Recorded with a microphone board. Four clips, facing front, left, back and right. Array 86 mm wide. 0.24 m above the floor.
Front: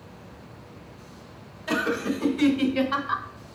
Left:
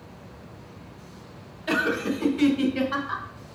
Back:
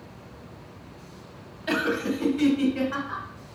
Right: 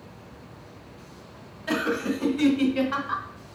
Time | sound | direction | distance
1.7 | laughter | 160° left | 1.2 m